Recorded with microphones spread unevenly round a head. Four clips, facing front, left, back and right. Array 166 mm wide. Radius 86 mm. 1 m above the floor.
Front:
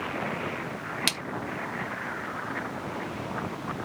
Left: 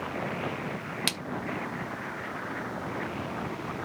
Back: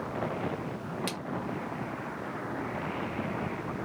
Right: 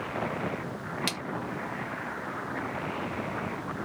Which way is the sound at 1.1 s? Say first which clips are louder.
Even, front 2 dB; 35° left.